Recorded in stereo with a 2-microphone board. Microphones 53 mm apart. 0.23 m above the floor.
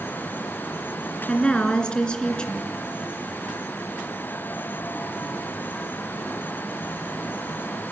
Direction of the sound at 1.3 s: 15° left (ahead or behind).